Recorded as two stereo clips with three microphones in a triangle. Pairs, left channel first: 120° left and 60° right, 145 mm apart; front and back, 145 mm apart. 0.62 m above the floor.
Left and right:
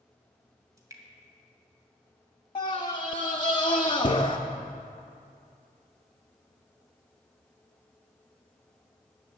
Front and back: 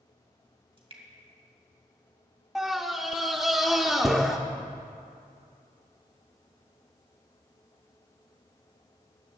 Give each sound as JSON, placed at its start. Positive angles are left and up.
{"t": 0.8, "sound": "dripping", "azimuth_deg": -125, "distance_m": 2.0}
{"t": 2.5, "sound": "a scream", "azimuth_deg": 95, "distance_m": 0.6}